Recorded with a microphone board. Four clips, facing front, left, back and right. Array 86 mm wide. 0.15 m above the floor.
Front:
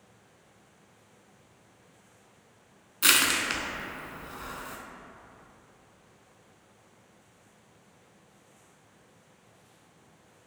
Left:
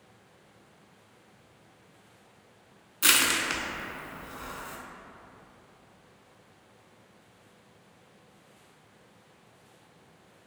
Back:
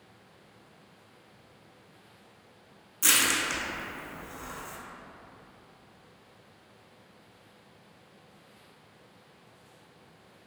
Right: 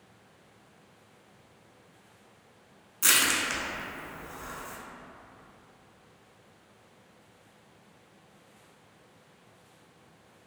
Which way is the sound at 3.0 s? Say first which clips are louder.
Left 1 dB, front 2 dB; 30° left.